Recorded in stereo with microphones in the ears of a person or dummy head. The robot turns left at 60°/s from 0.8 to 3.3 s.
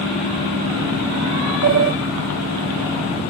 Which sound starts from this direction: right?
A sliding door, at 1.6 s.